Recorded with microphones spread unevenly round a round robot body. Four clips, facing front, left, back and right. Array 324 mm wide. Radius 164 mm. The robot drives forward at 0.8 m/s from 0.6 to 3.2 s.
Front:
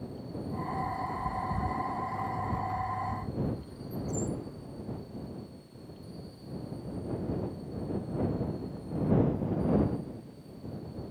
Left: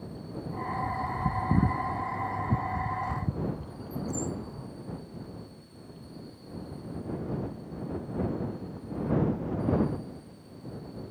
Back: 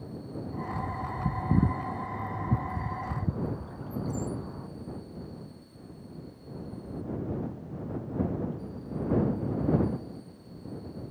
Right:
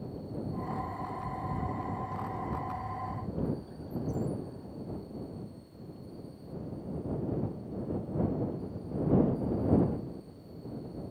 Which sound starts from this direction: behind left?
A bird, at 0.7 s.